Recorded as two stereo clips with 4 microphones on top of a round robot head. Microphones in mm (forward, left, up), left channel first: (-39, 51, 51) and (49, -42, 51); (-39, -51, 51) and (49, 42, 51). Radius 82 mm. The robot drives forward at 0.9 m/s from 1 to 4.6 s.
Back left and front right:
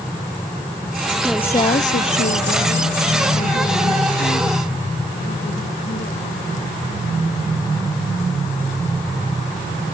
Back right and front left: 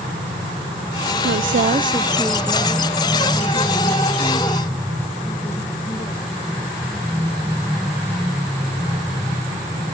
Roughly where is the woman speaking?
Ahead left.